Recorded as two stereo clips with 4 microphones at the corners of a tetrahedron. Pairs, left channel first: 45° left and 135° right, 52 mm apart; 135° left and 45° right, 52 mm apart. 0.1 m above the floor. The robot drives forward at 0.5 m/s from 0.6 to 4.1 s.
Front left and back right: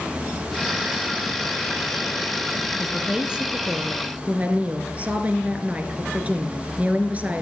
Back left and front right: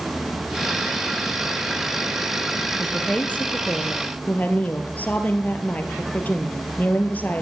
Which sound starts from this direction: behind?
A woman speaking, at 2.7 s.